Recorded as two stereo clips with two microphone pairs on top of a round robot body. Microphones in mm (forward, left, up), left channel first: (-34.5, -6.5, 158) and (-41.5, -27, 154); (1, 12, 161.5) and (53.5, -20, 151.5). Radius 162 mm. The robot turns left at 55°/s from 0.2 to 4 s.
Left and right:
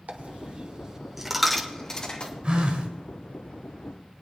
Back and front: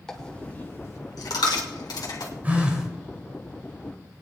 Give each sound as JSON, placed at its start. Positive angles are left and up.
{"t": 0.1, "sound": "a dropped coin", "azimuth_deg": -130, "distance_m": 1.0}
{"t": 2.4, "sound": "a phone buzzing", "azimuth_deg": -85, "distance_m": 2.5}